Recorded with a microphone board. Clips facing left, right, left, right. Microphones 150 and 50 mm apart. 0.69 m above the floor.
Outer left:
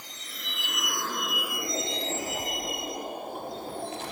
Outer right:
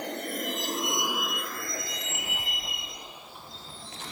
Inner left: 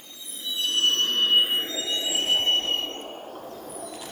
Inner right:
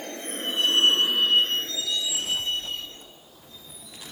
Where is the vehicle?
65° right (ahead or behind); by 4.1 s 55° left (ahead or behind).